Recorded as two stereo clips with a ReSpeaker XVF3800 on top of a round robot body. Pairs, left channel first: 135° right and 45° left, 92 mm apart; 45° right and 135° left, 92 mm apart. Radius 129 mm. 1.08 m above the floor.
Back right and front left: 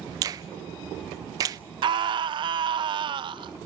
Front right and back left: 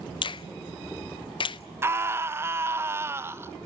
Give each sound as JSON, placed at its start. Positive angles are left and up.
{"t": 0.2, "sound": "a finger snap", "azimuth_deg": -5, "distance_m": 0.5}
{"t": 1.8, "sound": "a scream", "azimuth_deg": 75, "distance_m": 1.3}